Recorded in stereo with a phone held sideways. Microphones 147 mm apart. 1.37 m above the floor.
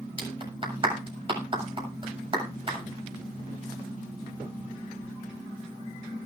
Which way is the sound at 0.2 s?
35° right (ahead or behind).